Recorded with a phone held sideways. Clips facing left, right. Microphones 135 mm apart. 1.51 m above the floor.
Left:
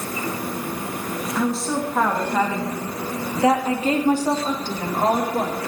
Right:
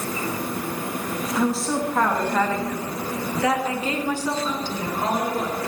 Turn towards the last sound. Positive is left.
turn(degrees=55)  # may be behind; listen again after turning